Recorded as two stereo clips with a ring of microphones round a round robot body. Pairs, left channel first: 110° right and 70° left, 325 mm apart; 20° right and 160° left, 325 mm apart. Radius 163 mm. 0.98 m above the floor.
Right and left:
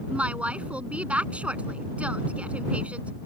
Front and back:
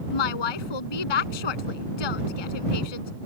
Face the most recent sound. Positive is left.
turn(degrees=-20)